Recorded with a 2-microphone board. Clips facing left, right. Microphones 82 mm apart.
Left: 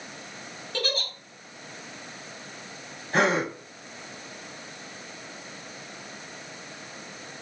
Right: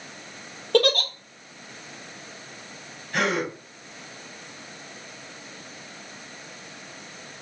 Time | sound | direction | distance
0.7 | a giggle | 65° right (ahead or behind) | 0.9 m
3.1 | a gasp | 35° left (ahead or behind) | 1.7 m